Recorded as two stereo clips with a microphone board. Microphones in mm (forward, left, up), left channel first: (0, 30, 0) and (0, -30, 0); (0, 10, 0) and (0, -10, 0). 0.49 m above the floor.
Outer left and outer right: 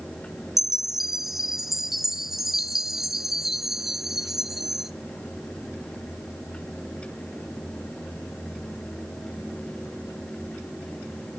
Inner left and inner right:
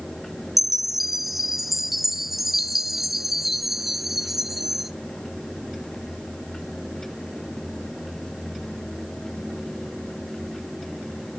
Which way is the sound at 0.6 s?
5° right (ahead or behind).